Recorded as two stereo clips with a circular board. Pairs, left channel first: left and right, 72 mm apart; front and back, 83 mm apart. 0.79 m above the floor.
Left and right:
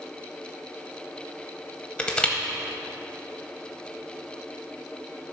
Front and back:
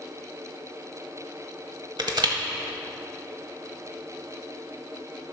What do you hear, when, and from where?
2.0 s crushing: 160° left, 1.0 m